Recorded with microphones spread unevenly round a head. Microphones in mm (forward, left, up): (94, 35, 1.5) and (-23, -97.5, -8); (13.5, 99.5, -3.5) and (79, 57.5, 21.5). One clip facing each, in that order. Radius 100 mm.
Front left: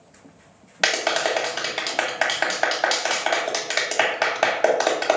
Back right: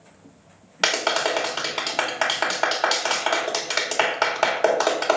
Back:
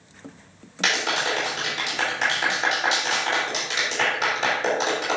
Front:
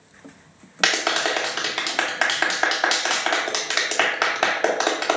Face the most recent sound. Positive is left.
turn(degrees=-30)